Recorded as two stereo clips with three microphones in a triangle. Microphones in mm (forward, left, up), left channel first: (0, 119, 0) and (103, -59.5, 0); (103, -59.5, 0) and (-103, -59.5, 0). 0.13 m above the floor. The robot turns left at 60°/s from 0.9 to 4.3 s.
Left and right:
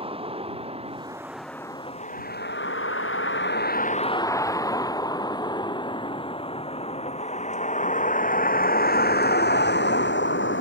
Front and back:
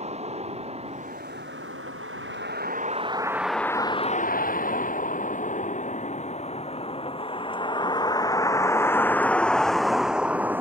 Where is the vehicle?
120° right; by 10.6 s 100° left.